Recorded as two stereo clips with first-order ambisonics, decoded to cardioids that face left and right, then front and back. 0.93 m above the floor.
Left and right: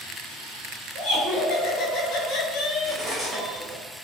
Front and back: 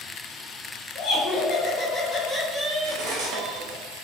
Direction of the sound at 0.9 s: 55° left.